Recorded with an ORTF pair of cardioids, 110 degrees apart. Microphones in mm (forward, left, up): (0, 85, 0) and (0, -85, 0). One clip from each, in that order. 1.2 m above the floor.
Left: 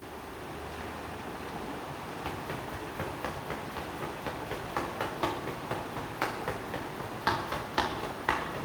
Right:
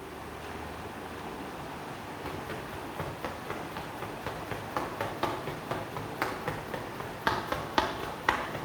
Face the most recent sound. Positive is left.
turn(degrees=-25)